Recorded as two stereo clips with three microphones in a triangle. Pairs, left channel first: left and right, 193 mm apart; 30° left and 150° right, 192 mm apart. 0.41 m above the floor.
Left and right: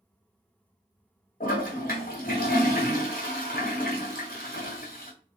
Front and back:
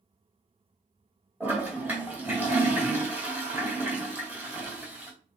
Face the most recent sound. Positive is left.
turn(degrees=130)